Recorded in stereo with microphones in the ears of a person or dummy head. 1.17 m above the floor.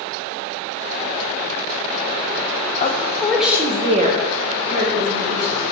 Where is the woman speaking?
30° left (ahead or behind), 0.6 m; by 5.6 s 65° right (ahead or behind), 1.3 m.